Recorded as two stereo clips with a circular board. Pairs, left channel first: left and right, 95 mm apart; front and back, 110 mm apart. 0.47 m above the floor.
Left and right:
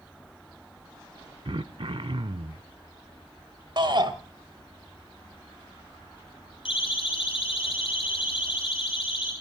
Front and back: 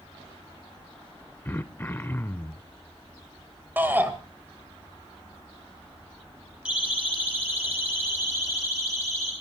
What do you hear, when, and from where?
1.4 s throat clearing: 70° right, 0.6 m
3.8 s a shout: 110° right, 2.5 m
6.7 s a siren: 100° left, 5 m; by 9.3 s 120° left, 7.5 m